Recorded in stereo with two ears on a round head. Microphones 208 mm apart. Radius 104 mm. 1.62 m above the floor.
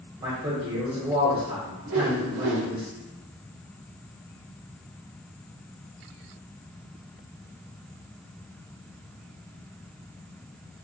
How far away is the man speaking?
About 1.1 m.